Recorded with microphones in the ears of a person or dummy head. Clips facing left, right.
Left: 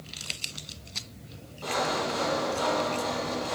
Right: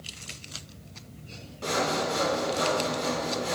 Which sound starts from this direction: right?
Sawing, at 1.6 s.